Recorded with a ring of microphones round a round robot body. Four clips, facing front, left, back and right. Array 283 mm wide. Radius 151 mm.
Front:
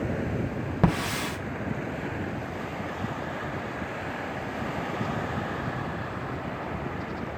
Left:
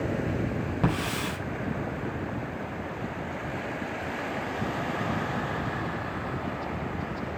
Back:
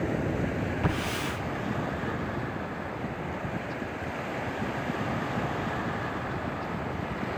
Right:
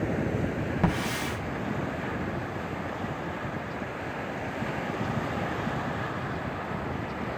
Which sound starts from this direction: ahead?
A hiss, at 0.8 s.